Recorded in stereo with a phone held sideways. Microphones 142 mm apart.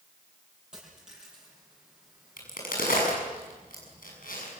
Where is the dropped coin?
5° right (ahead or behind), 10 m.